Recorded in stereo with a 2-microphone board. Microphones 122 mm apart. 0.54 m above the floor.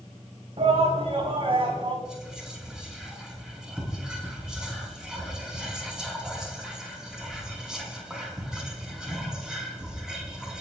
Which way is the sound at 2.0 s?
5° right (ahead or behind).